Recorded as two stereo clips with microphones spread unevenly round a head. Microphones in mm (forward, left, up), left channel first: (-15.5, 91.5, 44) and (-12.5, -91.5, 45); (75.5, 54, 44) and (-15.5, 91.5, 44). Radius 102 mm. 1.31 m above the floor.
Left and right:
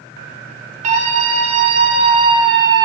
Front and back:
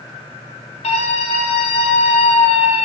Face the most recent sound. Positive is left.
turn(degrees=-15)